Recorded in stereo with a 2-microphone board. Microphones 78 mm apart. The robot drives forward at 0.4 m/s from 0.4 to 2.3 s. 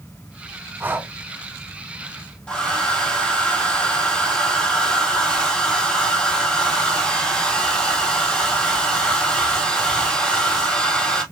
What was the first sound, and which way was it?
Breathing, 25° right (ahead or behind).